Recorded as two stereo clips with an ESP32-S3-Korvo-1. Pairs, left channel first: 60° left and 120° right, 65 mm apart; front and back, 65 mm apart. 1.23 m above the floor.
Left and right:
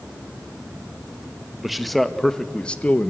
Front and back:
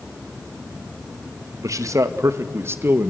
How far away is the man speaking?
About 1.7 m.